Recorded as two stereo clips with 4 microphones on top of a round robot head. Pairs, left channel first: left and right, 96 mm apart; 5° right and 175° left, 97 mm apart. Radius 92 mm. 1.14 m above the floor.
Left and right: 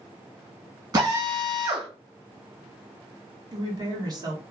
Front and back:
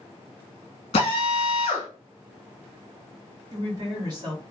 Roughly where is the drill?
Ahead right.